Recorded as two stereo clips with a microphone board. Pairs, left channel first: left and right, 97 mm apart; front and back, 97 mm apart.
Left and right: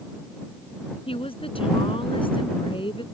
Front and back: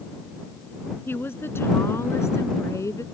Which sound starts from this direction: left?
A woman speaking, at 1.1 s.